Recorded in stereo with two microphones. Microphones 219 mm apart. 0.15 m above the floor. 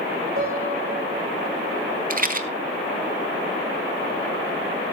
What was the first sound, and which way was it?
A piano, 85° right.